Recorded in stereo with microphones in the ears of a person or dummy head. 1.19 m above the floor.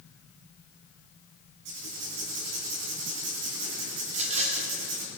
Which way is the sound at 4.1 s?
40° right (ahead or behind).